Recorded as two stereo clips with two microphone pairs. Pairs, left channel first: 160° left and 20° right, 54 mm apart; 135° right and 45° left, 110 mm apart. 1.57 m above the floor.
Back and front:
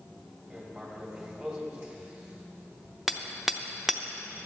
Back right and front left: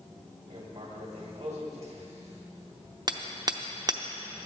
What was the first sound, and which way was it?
Writing, 35° left.